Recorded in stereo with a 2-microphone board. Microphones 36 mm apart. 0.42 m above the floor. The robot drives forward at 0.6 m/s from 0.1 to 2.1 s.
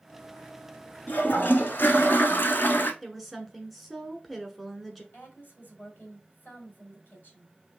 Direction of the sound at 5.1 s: 55° left (ahead or behind).